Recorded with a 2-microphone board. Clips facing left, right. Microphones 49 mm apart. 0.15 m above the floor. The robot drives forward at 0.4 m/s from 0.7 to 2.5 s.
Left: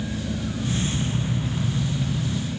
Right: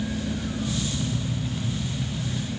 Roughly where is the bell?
No bell in this recording.